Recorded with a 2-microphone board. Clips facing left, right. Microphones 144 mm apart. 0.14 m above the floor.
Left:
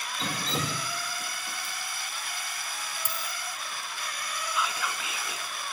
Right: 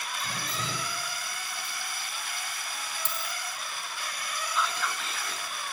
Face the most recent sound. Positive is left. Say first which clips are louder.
# right 1 dB
turn(degrees=5)  # may be behind; listen again after turning